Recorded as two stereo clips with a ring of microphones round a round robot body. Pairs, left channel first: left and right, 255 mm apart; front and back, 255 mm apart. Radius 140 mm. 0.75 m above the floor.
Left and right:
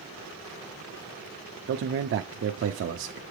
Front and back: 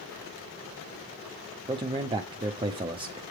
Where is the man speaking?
110° right, 0.7 m.